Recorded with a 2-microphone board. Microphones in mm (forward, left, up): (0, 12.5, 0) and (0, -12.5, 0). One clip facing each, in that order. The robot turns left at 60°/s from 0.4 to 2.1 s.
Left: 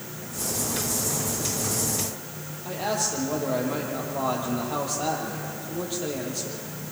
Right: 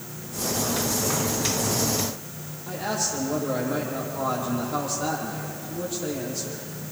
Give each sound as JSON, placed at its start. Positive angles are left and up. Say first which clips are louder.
{"t": 2.6, "sound": "a man speaking", "louder": "left 1 dB", "side_deg": 60, "distance_m": 7.5}